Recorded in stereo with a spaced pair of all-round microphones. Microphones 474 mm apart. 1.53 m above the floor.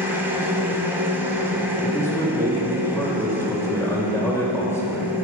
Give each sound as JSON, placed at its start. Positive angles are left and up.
{"t": 0.0, "sound": "a machine running", "side_deg": -5, "distance_m": 1.6}
{"t": 1.8, "sound": "a man speaking", "side_deg": 5, "distance_m": 2.5}